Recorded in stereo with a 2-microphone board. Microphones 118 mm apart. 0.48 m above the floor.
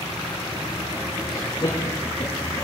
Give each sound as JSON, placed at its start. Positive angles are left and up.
{"t": 1.3, "sound": "laughter", "side_deg": 45, "distance_m": 7.0}